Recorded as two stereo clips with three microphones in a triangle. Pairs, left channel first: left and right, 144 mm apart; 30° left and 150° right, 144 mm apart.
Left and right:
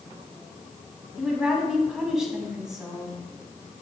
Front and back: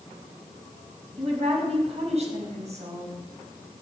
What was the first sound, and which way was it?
A woman speaking, 175° right.